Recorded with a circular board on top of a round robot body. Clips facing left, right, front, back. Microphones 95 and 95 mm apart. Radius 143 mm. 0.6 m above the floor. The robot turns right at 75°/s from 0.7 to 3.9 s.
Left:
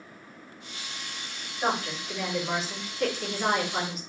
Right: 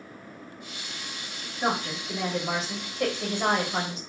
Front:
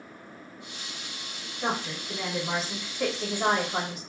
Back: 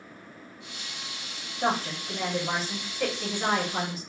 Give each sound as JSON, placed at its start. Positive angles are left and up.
{"t": 1.6, "sound": "a woman speaking", "azimuth_deg": -175, "distance_m": 1.7}